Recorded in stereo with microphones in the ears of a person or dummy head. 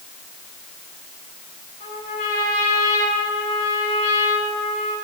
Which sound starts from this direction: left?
A trumpet, at 1.8 s.